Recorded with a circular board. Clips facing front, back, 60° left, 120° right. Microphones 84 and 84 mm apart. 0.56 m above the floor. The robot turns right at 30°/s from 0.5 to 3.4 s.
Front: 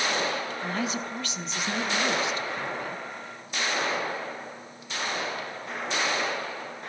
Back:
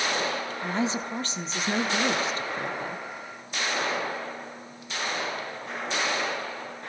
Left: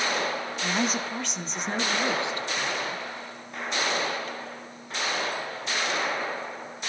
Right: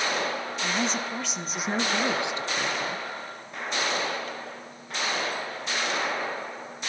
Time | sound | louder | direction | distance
0.6 | a woman speaking | back 5 dB, left 1 dB | 130° left | 0.9 m